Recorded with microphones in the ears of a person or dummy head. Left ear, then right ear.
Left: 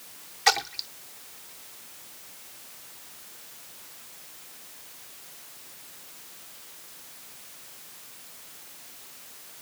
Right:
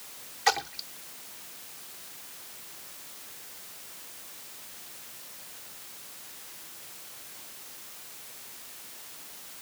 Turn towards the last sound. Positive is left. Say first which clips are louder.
# left 3 dB
turn(degrees=15)  # may be behind; listen again after turning